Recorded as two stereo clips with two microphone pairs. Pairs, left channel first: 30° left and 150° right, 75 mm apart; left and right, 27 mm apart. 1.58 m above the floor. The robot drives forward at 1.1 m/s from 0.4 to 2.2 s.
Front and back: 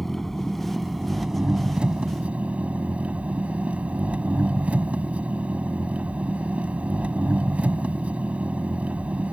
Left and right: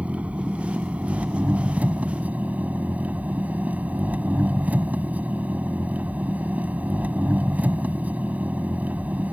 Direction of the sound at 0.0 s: 55° right.